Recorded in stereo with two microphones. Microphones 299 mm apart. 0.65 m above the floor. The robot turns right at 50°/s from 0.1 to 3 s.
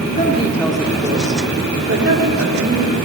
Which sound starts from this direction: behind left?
A woman speaking, at 0.2 s.